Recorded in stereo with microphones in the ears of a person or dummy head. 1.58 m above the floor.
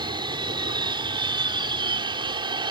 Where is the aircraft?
30° right (ahead or behind).